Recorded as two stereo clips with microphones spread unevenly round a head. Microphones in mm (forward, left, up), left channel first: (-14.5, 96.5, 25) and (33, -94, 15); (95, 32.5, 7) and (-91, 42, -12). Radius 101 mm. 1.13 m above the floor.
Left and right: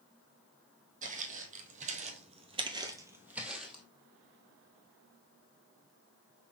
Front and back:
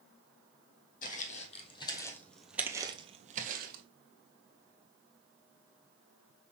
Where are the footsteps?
30° right, 1.8 m; by 3.8 s 170° right, 1.5 m.